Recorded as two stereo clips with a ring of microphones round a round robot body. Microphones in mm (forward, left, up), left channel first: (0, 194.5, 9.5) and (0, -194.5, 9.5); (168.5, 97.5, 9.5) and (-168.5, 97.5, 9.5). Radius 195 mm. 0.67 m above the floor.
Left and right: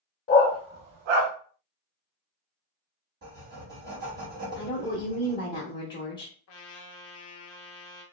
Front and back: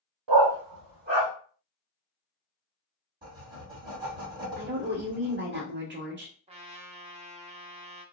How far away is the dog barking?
About 0.8 m.